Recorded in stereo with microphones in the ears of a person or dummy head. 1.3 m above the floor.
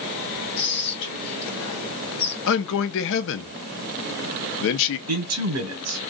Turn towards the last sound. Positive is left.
turn(degrees=-80)